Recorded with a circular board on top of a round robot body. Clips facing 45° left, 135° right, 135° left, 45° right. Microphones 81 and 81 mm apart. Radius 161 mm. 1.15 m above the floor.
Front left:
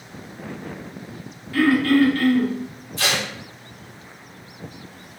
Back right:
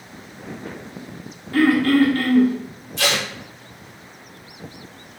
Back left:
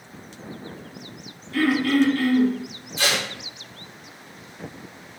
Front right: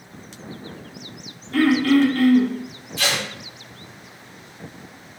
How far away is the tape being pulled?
About 1.2 m.